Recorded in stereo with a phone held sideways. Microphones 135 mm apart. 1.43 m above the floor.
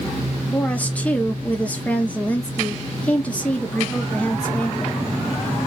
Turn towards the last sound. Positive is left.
turn(degrees=10)  # may be behind; listen again after turning